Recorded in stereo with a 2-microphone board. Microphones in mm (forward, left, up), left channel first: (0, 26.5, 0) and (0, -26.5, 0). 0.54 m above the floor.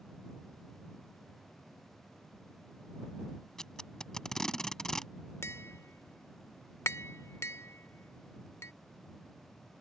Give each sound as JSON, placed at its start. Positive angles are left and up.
{"t": 3.6, "sound": "tape being pulled", "side_deg": 10}
{"t": 5.4, "sound": "tapping", "side_deg": 55}